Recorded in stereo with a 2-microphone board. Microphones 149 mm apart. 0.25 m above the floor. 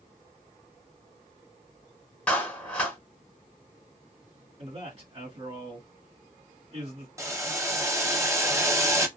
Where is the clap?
10° left (ahead or behind), 1.2 m.